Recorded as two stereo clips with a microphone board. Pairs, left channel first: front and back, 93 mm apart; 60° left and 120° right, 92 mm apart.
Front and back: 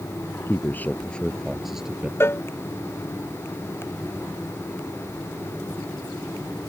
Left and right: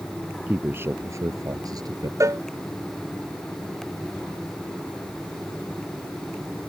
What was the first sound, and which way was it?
A man speaking, 55° right.